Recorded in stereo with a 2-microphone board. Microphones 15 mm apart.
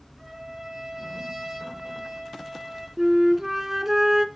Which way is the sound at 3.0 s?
25° right (ahead or behind).